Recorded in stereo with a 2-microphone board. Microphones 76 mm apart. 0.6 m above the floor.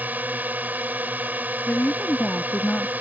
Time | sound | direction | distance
0.0 | a drone | 25° right (ahead or behind) | ?
1.7 | a woman speaking | 20° left (ahead or behind) | ?